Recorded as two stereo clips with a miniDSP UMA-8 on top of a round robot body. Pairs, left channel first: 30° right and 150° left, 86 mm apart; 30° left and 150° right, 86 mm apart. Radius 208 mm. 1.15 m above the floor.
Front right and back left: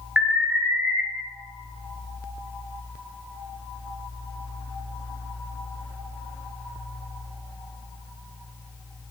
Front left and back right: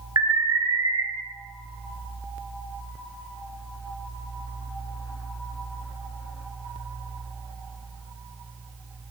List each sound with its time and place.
0.2 s an alarm: 135° right, 1.6 m